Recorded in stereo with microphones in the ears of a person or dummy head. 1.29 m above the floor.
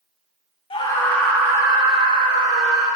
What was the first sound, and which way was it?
A scream, 25° left (ahead or behind).